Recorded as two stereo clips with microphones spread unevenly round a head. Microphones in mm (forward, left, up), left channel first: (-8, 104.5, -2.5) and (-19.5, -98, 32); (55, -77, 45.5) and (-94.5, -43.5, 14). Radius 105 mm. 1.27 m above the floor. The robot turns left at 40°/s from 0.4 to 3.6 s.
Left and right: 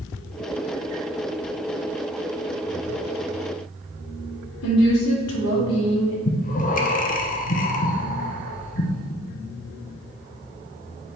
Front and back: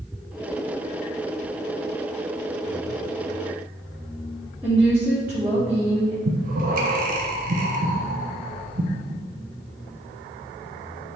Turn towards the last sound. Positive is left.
turn(degrees=135)